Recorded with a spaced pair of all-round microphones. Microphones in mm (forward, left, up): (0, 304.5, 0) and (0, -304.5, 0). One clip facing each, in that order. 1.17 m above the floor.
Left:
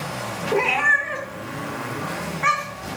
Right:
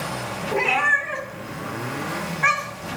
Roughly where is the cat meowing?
Centre.